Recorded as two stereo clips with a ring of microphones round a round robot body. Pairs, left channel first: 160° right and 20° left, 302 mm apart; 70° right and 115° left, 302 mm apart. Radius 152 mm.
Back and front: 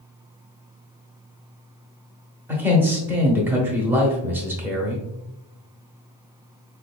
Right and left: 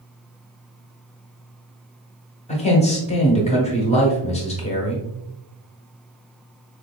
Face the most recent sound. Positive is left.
turn(degrees=-50)